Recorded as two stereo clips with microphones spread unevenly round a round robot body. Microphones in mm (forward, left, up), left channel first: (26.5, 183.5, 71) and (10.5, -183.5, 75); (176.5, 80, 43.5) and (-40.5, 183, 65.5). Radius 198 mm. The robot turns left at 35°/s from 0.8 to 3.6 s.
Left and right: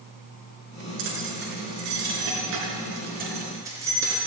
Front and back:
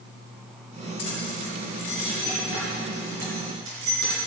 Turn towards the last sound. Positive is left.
turn(degrees=-175)